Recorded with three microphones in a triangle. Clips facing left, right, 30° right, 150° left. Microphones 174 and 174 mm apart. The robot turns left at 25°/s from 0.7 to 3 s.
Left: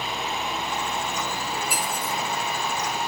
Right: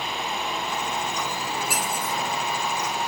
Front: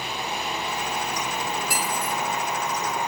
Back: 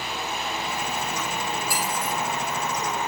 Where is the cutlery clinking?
100° right, 8 m; by 2.1 s 115° right, 8 m.